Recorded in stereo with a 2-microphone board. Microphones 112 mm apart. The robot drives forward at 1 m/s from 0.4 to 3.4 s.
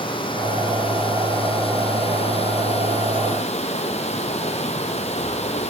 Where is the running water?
45° left (ahead or behind), 6.5 m; by 5.7 s 70° left (ahead or behind), 5 m.